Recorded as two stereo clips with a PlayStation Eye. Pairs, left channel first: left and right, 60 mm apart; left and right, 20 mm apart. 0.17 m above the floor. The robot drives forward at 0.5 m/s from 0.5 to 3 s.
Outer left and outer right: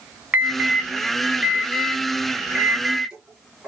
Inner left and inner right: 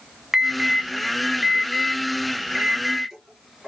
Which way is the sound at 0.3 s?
20° right (ahead or behind).